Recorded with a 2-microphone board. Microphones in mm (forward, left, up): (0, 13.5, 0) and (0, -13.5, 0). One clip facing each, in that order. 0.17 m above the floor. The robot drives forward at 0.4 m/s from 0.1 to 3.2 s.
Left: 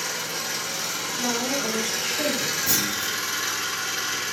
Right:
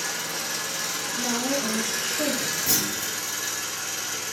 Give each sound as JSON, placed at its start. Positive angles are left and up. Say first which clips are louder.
{"t": 0.0, "sound": "an engine running", "louder": "left 1 dB", "side_deg": 10, "distance_m": 1.6}
{"t": 1.1, "sound": "a woman speaking", "louder": "left 1 dB", "side_deg": 20, "distance_m": 1.6}
{"t": 2.7, "sound": "a clunk", "louder": "left 2 dB", "side_deg": 0, "distance_m": 1.4}